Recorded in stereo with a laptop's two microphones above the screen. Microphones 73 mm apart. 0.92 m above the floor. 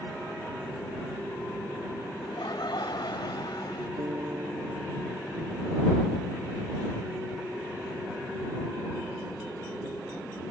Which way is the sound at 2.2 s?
80° left.